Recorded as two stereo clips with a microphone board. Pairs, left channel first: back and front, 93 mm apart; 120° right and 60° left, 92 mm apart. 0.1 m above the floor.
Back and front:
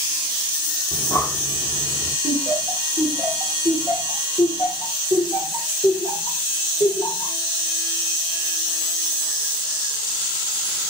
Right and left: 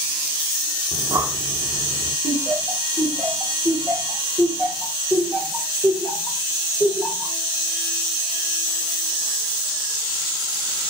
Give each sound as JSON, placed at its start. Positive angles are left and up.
{"t": 0.9, "sound": "breathing", "azimuth_deg": 125, "distance_m": 3.5}
{"t": 2.2, "sound": "laughter", "azimuth_deg": 165, "distance_m": 5.5}